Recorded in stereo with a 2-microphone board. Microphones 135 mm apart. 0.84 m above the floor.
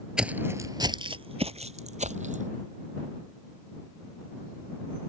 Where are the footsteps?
5° right (ahead or behind); by 2.5 s 65° right (ahead or behind).